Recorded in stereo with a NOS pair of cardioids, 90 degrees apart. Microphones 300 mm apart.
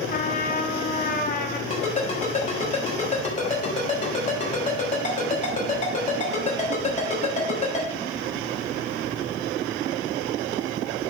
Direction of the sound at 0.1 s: 30° left.